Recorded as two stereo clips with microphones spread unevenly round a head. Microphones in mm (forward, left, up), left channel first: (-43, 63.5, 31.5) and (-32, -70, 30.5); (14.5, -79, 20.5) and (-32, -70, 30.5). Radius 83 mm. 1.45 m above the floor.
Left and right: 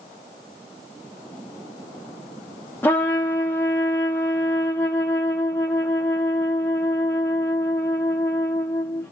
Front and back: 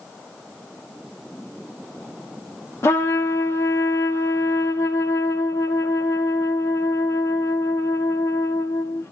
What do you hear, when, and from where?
2.8 s a trumpet: 20° left, 0.6 m